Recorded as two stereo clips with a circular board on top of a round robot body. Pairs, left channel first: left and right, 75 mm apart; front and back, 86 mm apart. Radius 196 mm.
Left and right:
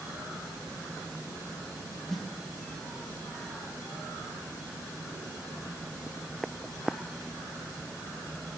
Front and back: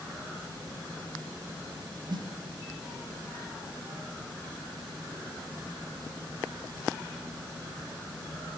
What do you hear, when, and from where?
2.1 s a snare drum: straight behind, 0.6 m